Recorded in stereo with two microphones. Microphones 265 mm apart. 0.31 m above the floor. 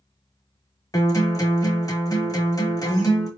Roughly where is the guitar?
Centre.